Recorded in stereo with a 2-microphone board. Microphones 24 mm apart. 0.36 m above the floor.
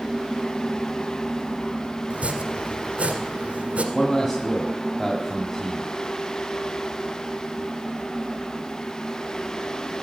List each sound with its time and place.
2.1 s chopping: 75° right (ahead or behind), 1.5 m
3.9 s a man speaking: 20° left (ahead or behind), 2.0 m